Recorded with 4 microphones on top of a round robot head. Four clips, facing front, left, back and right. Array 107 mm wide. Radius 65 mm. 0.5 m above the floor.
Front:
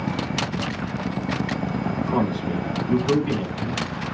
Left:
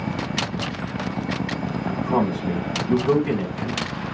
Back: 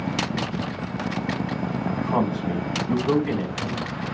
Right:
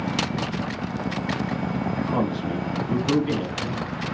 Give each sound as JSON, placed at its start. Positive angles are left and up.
{"t": 1.8, "sound": "a man speaking", "azimuth_deg": 140, "distance_m": 5.0}